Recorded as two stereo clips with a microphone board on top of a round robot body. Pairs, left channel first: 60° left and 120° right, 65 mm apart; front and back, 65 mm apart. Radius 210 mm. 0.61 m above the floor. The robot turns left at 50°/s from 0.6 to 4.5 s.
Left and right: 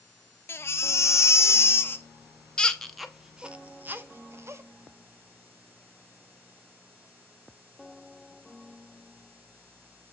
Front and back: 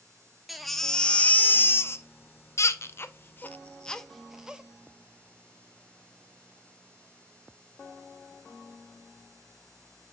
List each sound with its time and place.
0.5 s a baby crying: 90° left, 0.6 m; by 4.6 s 105° right, 0.6 m